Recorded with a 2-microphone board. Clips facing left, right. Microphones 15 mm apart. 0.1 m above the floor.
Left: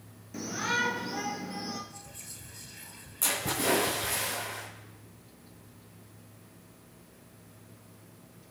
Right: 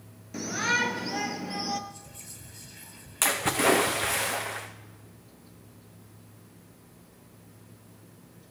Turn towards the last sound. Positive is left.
turn(degrees=-60)  # may be behind; listen again after turning